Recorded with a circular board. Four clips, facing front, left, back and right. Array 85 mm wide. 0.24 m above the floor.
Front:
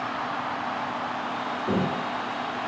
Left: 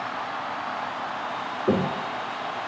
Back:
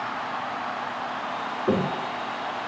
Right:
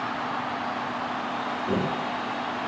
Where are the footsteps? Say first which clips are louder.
Left 5 dB, back 3 dB; 125° left, 1.7 m.